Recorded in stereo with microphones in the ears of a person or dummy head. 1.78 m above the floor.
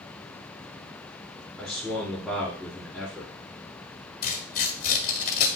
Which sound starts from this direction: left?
Tearing paper, at 4.2 s.